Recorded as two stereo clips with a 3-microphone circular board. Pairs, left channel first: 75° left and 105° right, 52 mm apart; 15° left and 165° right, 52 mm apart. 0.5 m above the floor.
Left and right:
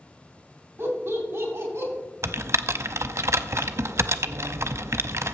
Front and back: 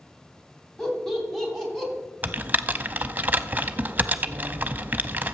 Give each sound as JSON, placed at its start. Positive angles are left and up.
{"t": 0.8, "sound": "laughter", "azimuth_deg": -70, "distance_m": 3.0}
{"t": 2.2, "sound": "typing on a keyboard", "azimuth_deg": -115, "distance_m": 0.5}